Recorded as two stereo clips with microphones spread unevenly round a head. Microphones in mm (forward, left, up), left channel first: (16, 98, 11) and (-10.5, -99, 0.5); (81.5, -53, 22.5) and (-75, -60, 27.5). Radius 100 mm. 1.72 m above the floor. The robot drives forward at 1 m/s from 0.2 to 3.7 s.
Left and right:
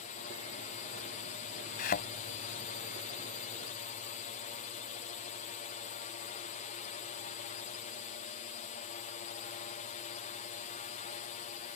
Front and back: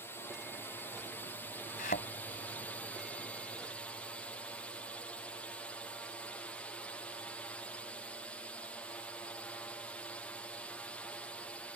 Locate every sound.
0.0 s a drone: 70° left; by 11.8 s 75° left
1.8 s a thud: 45° left; by 2.1 s 50° left